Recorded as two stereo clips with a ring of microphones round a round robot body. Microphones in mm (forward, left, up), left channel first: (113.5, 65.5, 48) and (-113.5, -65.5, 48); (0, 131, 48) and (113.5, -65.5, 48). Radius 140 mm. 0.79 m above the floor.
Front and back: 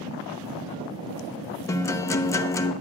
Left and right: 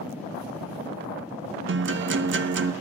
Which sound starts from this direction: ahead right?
A guitar, at 1.7 s.